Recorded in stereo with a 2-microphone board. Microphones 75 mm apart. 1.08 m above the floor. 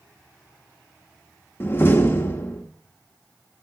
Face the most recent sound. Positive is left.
turn(degrees=30)  # may be behind; listen again after turning